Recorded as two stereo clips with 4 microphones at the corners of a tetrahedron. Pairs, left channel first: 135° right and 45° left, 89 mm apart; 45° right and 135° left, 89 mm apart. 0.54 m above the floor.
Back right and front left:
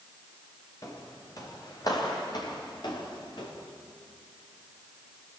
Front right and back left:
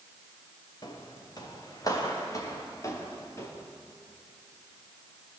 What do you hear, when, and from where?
0.8 s footsteps: 85° right, 4 m; by 3.5 s 100° right, 5.5 m